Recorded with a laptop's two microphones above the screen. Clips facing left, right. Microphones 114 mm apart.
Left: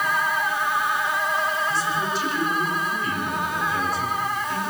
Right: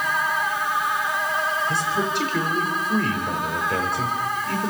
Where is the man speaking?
65° right (ahead or behind), 5.5 m.